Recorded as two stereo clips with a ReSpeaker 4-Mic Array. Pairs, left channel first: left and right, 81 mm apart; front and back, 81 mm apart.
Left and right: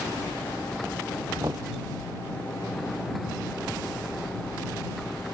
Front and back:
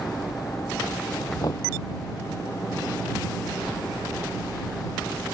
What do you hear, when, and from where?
1.4 s knocking: 45° right